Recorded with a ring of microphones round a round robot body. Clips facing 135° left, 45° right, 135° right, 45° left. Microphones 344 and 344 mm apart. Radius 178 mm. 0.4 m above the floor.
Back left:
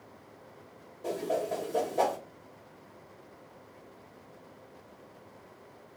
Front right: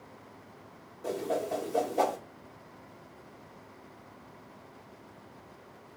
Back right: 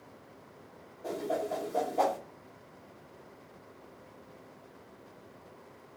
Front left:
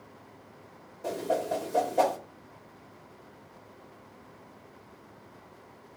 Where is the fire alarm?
I don't hear a fire alarm.